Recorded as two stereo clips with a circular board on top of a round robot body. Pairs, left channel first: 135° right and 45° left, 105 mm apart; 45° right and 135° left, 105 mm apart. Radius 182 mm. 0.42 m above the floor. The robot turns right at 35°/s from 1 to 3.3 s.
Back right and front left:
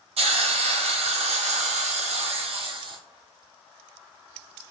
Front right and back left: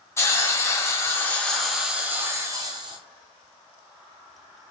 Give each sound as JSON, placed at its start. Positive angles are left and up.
{"t": 0.2, "sound": "a hiss", "azimuth_deg": 20, "distance_m": 0.8}